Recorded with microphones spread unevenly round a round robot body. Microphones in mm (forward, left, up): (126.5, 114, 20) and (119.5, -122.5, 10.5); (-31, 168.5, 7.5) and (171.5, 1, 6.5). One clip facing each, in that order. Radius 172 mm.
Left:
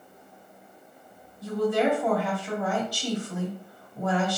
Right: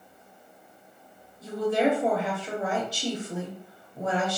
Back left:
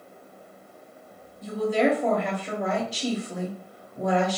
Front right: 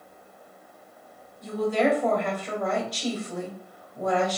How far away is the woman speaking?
About 1.0 m.